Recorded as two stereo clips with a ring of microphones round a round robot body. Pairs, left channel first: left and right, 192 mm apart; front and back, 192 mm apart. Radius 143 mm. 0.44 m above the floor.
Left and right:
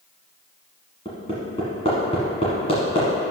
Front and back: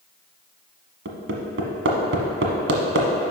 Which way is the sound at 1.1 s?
160° left.